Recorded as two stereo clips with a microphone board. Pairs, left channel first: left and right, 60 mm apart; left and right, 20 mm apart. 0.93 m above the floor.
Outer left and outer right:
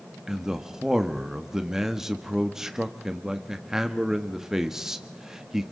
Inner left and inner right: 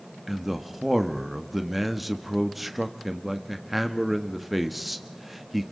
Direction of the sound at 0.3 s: 5° right (ahead or behind).